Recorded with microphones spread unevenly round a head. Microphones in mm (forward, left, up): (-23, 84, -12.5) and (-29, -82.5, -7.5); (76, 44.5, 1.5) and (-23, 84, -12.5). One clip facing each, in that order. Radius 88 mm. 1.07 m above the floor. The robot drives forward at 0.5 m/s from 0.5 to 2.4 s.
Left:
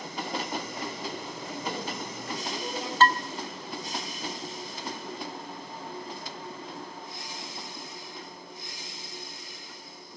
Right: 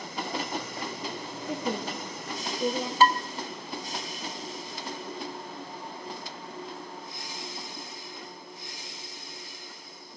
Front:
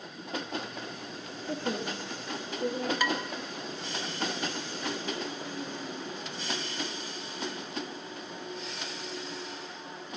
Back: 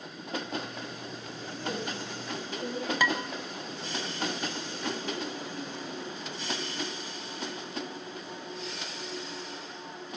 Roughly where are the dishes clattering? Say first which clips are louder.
Right 1 dB, back 3 dB; behind.